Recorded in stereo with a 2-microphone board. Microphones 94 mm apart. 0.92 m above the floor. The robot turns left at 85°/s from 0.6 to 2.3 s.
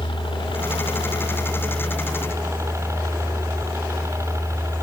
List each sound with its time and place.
0.0 s a helicopter: 110° left; by 4.8 s 35° right